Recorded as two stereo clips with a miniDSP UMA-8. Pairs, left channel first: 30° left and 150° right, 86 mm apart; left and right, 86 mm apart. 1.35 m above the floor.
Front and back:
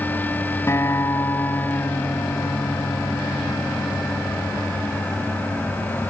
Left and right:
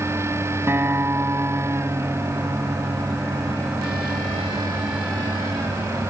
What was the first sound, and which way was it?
A guitar, 30° right.